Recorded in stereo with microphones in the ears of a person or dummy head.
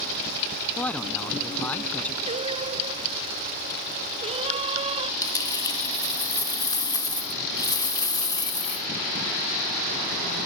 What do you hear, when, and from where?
0.8 s a man speaking: 10° left (ahead or behind)
2.3 s singing: 35° right (ahead or behind)
5.2 s a dropped coin: 25° left (ahead or behind)